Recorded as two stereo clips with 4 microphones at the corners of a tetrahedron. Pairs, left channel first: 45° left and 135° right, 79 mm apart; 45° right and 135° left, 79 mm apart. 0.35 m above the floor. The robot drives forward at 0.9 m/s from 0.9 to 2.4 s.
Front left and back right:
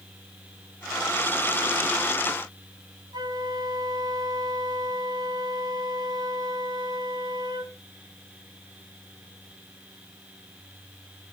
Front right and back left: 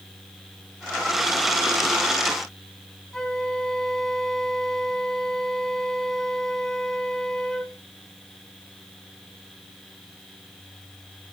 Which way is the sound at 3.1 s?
130° right.